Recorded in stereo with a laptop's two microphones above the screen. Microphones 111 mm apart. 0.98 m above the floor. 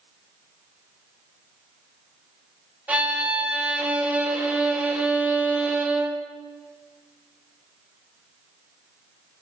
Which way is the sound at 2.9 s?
15° right (ahead or behind).